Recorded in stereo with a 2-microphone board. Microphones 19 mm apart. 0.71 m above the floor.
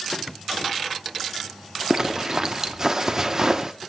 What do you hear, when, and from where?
1.9 s a zipper: 30° right (ahead or behind), 0.8 m